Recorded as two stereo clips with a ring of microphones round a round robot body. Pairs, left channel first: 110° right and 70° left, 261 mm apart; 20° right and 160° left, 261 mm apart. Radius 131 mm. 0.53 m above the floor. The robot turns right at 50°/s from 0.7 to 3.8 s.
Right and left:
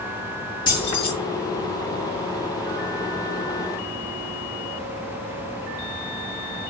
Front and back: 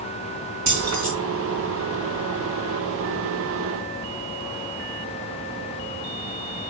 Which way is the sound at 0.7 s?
175° left.